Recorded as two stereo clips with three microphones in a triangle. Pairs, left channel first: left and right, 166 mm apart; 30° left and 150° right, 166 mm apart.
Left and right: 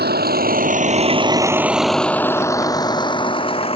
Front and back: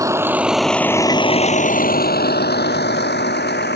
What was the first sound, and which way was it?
A vehicle, 80° right.